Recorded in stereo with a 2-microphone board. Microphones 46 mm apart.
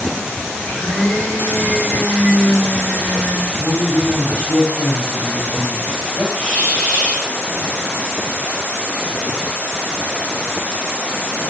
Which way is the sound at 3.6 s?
80° left.